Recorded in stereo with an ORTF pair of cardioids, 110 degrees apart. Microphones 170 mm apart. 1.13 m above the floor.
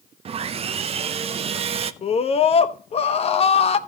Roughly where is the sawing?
Ahead right.